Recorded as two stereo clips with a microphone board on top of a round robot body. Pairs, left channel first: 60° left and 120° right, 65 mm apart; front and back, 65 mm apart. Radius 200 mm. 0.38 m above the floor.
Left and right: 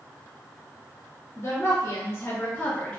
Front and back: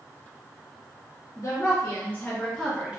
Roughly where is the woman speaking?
Ahead left.